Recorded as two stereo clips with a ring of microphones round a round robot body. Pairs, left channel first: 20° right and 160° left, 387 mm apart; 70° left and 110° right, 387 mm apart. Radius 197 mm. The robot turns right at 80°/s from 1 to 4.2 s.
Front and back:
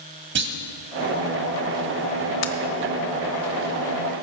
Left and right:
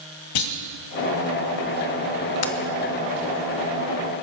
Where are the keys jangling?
20° left, 1.2 m; by 2.5 s 30° left, 1.2 m.